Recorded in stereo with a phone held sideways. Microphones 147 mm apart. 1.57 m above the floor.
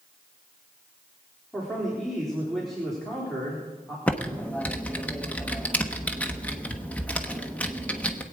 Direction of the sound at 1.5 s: Centre (ahead or behind).